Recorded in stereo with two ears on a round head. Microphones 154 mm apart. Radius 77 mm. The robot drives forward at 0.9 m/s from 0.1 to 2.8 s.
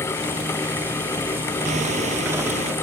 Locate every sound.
1.6 s hammering: 45° right (ahead or behind); by 2.7 s 40° right (ahead or behind)